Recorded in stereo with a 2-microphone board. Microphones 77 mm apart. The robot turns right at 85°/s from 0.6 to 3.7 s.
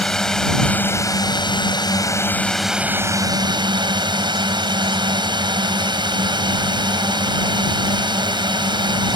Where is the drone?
10° left; by 9.2 s 90° right.